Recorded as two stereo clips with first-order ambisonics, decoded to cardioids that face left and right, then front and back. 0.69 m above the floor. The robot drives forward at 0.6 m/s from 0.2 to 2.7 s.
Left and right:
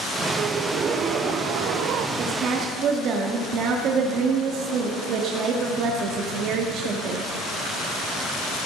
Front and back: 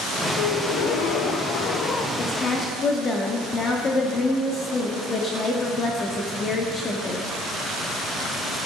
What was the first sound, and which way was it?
A gasp, 25° right.